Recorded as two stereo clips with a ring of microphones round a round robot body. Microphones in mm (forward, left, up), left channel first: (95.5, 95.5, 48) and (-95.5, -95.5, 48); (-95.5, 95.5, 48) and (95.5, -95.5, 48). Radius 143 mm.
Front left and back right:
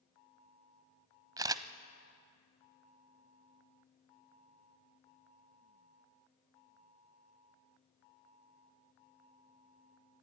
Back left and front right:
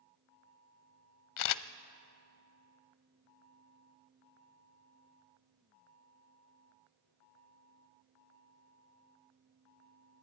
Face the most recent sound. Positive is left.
turn(degrees=150)